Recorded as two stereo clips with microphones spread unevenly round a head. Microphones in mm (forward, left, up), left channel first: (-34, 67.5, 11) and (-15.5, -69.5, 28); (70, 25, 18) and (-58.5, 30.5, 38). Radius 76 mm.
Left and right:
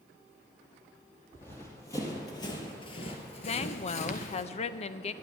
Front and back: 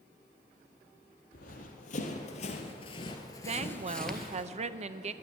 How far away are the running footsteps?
About 2 m.